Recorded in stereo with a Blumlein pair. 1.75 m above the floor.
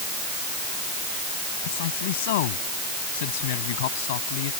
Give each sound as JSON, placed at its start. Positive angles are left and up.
{"t": 1.6, "sound": "a man speaking", "azimuth_deg": 55}